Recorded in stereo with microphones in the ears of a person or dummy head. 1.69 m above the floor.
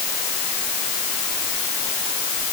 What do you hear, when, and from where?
Only background noise.